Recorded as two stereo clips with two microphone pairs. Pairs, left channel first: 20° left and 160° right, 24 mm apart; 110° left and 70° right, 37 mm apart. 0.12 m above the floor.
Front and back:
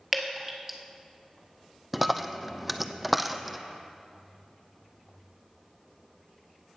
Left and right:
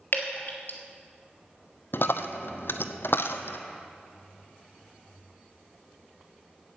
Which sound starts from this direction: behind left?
Dripping, at 0.1 s.